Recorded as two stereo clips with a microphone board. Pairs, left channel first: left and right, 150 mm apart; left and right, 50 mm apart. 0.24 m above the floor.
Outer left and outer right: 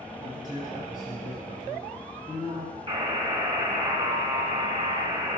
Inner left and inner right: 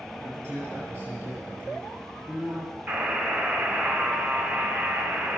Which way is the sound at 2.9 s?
40° right (ahead or behind).